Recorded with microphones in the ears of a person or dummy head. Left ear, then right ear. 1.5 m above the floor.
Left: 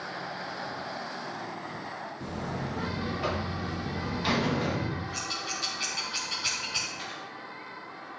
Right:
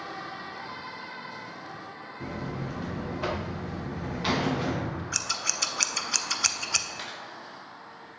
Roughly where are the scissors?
Right.